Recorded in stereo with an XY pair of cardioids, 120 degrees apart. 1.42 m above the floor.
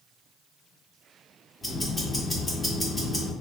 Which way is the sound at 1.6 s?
10° left.